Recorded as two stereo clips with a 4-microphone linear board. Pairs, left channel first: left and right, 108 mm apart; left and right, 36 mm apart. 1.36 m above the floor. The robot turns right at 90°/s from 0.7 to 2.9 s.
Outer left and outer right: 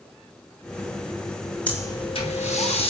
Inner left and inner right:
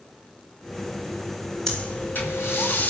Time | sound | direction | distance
1.7 | breathing | 10° left | 5.5 m